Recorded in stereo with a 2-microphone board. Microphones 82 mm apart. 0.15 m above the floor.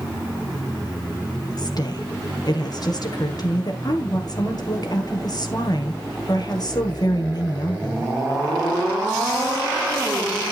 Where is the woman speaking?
50° left (ahead or behind), 2.5 m.